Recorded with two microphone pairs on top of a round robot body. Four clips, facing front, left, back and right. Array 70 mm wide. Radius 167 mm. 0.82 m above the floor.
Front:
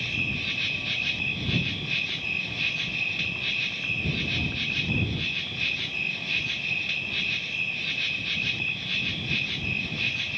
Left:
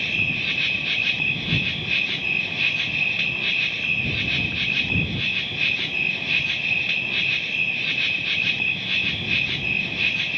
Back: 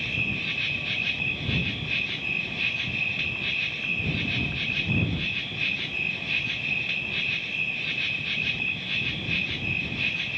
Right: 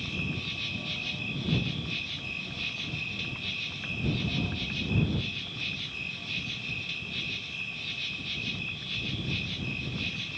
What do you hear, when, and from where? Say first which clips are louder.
0.0 s an insect: left 10 dB, back 1 dB; 95° left